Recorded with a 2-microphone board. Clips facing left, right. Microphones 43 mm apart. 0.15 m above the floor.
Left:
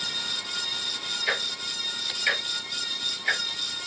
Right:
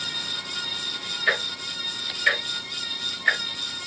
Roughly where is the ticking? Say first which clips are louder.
Right 5 dB; right.